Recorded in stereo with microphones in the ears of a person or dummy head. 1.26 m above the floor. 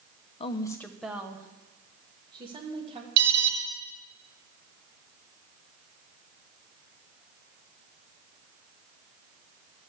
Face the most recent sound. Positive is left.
turn(degrees=-60)  # may be behind; listen again after turning